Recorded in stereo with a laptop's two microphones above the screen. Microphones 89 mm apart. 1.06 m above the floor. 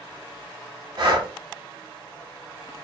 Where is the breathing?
50° right (ahead or behind), 1.1 m.